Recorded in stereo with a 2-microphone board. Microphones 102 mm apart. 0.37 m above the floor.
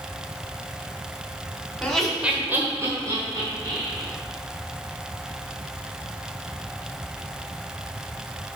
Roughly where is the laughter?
Centre.